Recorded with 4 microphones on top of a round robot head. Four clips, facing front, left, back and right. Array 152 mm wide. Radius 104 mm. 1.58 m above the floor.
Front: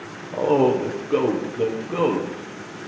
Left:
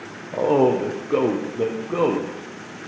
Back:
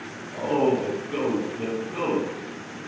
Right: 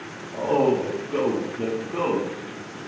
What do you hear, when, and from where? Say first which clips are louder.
0.3 s a man speaking: left 3 dB, front 4 dB; 55° left, 1.1 m